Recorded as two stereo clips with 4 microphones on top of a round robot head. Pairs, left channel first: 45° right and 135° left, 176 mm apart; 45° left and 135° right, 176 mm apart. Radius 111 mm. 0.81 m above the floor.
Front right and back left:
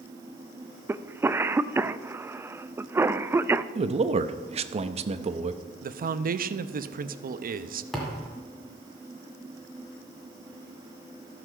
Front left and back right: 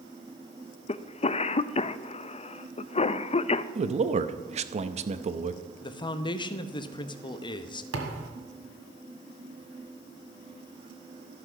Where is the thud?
135° right, 1.5 m.